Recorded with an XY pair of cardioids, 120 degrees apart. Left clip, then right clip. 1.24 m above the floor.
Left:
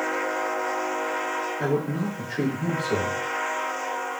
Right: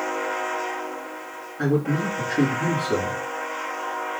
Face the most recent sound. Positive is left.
turn(degrees=-60)